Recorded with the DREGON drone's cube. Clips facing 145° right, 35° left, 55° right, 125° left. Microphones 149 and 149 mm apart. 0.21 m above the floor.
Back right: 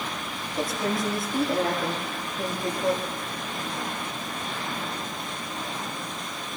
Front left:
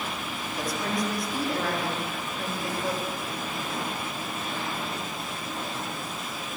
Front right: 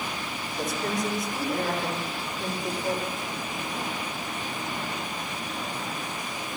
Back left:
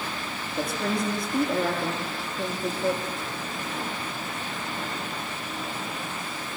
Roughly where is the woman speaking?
Behind left.